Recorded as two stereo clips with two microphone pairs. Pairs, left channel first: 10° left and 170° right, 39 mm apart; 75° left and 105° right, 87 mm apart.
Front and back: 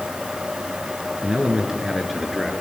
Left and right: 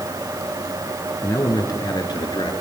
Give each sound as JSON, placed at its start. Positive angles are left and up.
{"t": 1.2, "sound": "a man speaking", "azimuth_deg": 130, "distance_m": 3.0}